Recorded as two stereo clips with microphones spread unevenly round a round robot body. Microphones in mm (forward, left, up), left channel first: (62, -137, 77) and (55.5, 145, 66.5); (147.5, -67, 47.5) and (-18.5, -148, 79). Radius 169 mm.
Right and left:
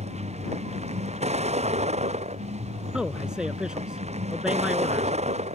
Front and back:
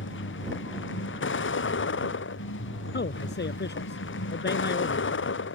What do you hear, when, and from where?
0.0 s a vehicle: 25° left
2.9 s a man speaking: 5° left